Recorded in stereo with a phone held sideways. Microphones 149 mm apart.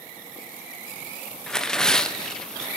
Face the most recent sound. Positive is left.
turn(degrees=5)  # may be behind; listen again after turning